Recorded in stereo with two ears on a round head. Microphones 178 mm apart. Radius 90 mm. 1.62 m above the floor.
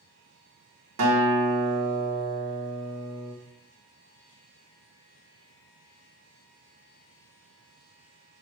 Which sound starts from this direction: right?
A guitar, at 1.0 s.